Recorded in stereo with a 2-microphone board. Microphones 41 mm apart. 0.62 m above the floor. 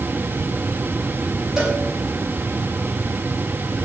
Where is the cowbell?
15° right (ahead or behind), 5 m.